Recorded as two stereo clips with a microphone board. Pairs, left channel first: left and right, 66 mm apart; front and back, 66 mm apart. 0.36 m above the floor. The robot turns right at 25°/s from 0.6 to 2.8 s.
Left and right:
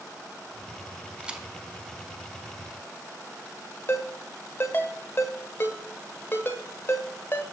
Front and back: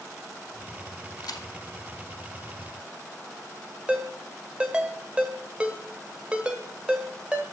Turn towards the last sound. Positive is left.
turn(degrees=115)